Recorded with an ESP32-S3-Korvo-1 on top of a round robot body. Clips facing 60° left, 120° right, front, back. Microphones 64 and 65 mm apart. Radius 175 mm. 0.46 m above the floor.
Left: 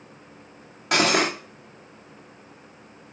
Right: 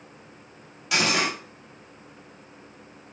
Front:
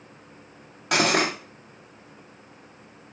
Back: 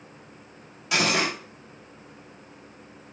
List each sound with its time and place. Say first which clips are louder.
0.9 s cutlery clinking: left 4 dB, front 2 dB; 25° left, 1.1 m